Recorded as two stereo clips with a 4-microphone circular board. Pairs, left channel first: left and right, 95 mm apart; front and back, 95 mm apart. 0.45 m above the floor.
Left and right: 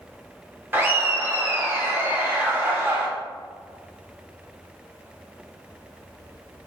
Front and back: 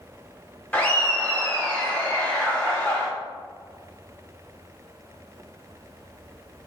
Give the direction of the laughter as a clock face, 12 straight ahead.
2 o'clock.